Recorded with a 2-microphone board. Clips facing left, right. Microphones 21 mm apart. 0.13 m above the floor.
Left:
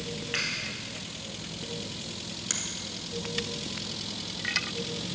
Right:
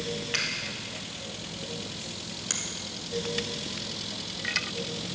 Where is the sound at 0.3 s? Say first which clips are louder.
Right 1 dB; 50° right (ahead or behind), 2.5 m.